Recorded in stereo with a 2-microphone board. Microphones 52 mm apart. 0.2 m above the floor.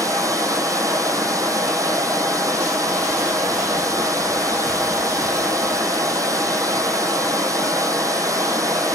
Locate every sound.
0.0 s running water: 85° right, 1.2 m